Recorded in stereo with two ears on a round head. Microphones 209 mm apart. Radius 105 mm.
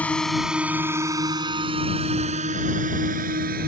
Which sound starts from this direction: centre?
A drone, at 0.0 s.